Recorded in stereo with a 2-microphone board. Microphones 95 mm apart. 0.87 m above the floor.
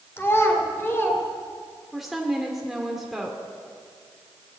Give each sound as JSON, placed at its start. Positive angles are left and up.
{"t": 0.2, "sound": "a child speaking", "side_deg": 25, "distance_m": 1.9}
{"t": 1.9, "sound": "a woman speaking", "side_deg": 0, "distance_m": 2.5}